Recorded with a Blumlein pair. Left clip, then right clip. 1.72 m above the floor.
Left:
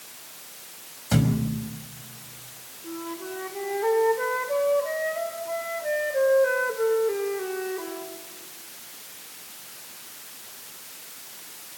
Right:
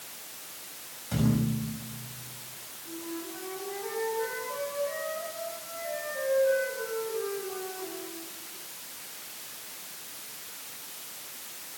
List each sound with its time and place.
1.1 s a thud: 30° left, 5 m
2.8 s a flute: 35° left, 5 m